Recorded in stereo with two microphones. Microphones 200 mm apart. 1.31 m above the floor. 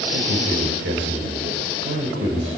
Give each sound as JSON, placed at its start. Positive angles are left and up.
{"t": 0.1, "sound": "a man speaking", "side_deg": -90, "distance_m": 6.0}